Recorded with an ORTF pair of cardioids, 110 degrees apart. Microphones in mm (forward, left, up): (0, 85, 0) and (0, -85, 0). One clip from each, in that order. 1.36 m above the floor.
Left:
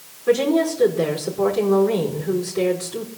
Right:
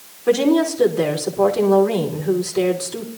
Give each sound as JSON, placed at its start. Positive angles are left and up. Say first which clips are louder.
{"t": 0.3, "sound": "a woman speaking", "louder": "right 2 dB", "azimuth_deg": -35, "distance_m": 4.5}